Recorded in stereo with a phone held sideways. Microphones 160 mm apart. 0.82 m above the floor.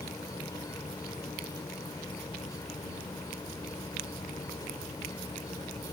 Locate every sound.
0.0 s an insect: 20° left (ahead or behind)